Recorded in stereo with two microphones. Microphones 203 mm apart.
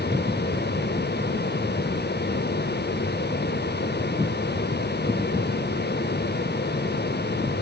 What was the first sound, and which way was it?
Only background noise.